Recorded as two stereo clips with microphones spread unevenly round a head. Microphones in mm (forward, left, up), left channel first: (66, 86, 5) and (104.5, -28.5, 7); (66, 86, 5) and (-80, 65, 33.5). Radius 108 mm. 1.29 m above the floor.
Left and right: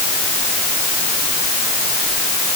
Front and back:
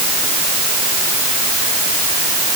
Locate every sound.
Only background noise.